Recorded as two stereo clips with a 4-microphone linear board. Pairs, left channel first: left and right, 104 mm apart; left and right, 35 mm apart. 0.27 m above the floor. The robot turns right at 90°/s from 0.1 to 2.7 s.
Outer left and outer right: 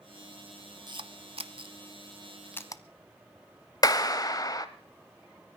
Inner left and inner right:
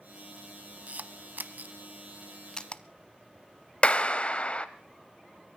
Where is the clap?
35° left (ahead or behind), 0.9 m.